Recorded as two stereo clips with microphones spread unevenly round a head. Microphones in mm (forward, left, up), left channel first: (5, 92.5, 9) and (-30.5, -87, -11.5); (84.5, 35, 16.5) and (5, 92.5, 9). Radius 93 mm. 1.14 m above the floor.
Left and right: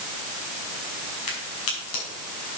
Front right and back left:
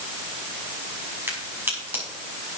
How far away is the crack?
About 5.5 m.